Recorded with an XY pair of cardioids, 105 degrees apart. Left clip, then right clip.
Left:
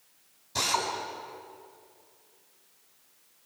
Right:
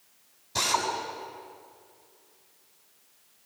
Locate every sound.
0.6 s a drill: 10° right, 5 m